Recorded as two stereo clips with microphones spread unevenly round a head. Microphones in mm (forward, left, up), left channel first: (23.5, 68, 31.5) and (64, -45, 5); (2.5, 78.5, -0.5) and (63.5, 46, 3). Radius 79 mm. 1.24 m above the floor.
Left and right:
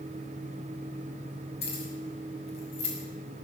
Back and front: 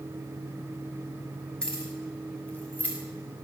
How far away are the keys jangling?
About 6 m.